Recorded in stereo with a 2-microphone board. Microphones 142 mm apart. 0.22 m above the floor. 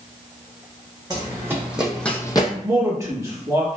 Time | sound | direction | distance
1.1 | running footsteps | 25° right (ahead or behind) | 1.0 m
2.6 | a man speaking | 20° right (ahead or behind) | 1.0 m